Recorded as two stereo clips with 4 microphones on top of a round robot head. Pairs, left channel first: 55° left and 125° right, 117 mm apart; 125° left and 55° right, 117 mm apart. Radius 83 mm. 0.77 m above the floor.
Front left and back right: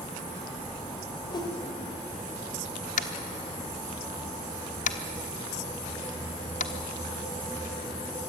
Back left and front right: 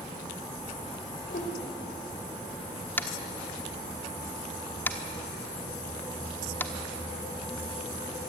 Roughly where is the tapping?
Ahead left.